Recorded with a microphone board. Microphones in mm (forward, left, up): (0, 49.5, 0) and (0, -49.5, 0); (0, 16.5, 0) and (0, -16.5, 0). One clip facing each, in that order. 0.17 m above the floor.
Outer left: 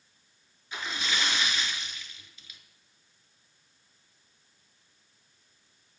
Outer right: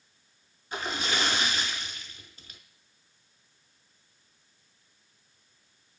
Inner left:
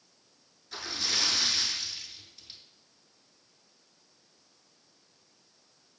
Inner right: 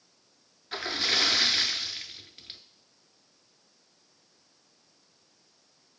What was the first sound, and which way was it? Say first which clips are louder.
A splash: outer right 3 dB, inner right 5 dB; 45° right (ahead or behind).